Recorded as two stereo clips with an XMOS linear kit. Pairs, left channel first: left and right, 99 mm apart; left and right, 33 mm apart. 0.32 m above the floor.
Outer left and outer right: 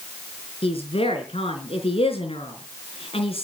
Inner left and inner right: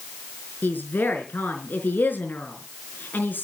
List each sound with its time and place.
0.6 s a woman speaking: 75° left (ahead or behind), 5 m